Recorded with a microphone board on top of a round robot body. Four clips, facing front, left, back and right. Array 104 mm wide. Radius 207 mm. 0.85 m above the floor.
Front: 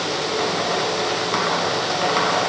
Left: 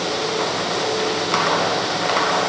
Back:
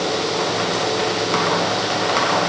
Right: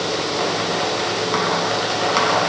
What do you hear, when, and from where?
Only background noise.